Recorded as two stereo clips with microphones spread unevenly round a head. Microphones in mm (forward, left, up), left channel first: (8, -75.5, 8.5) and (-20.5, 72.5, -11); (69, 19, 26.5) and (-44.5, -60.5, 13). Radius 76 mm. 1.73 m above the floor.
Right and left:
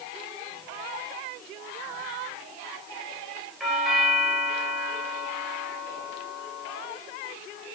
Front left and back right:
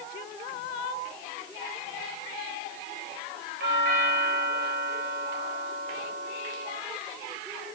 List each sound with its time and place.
3.6 s a doorbell: 170° right, 10 m